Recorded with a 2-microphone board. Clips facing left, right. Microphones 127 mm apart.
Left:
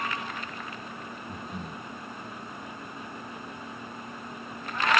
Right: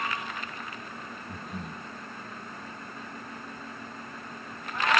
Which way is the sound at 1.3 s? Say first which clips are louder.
Even; centre (ahead or behind).